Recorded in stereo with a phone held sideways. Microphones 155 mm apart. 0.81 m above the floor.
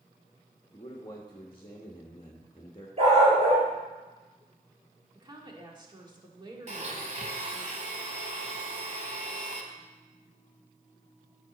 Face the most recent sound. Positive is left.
turn(degrees=-50)  # may be behind; listen again after turning